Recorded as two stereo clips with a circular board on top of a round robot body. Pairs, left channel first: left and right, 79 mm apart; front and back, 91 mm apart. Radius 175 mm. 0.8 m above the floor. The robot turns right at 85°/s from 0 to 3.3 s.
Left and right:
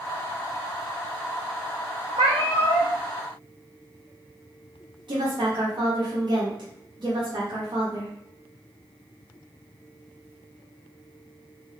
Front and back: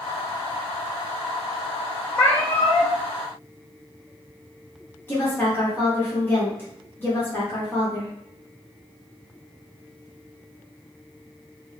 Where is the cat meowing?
85° right, 1.1 m; by 3.0 s 15° right, 1.1 m.